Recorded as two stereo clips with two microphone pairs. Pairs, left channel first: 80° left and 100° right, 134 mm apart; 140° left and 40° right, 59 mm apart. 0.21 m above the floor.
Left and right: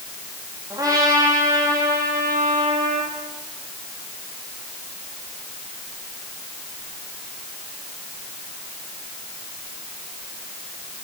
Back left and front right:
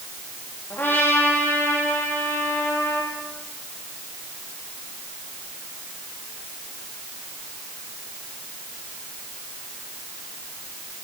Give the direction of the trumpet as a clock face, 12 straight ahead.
5 o'clock.